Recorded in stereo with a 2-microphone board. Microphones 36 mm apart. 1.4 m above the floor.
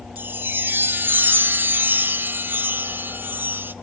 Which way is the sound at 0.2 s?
65° right (ahead or behind).